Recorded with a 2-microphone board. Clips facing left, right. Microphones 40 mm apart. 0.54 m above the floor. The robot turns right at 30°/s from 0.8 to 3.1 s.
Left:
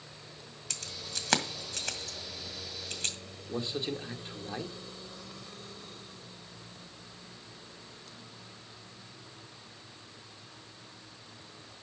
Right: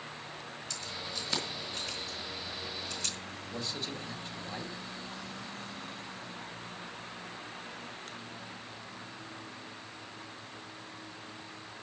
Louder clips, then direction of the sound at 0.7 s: Even; 65° left (ahead or behind).